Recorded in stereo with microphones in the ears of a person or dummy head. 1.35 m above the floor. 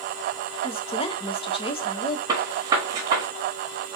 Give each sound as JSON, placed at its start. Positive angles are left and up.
{"t": 0.6, "sound": "a woman speaking", "side_deg": 25, "distance_m": 0.7}
{"t": 2.3, "sound": "a gunshot", "side_deg": -25, "distance_m": 1.2}